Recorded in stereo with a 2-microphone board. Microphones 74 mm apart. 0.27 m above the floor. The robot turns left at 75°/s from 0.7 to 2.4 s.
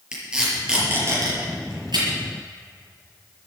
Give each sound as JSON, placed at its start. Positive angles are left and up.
{"t": 0.1, "sound": "tape being pulled", "side_deg": -10, "distance_m": 6.0}